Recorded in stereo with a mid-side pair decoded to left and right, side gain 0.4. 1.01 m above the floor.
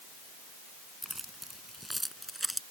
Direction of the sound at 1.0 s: 5° right.